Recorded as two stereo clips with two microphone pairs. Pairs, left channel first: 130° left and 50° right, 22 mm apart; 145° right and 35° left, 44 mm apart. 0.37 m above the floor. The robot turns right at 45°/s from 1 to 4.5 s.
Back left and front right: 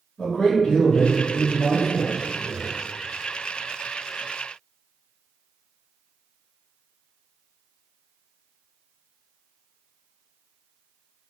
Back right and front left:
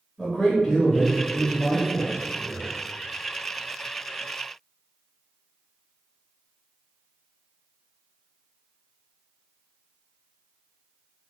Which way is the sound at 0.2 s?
145° left.